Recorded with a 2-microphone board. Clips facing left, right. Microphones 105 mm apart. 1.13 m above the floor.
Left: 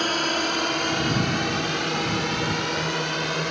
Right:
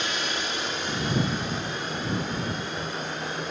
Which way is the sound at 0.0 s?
50° left (ahead or behind).